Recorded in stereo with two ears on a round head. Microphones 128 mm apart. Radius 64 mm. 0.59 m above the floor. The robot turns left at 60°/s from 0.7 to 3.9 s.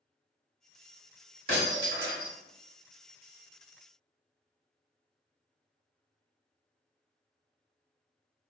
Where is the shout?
No shout in this recording.